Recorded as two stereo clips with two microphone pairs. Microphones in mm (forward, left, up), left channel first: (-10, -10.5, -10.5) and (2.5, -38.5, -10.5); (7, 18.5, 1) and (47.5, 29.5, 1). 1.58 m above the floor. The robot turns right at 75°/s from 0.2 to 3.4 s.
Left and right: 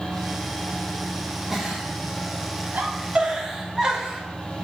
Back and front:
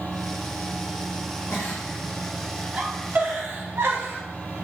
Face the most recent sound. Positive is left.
turn(degrees=0)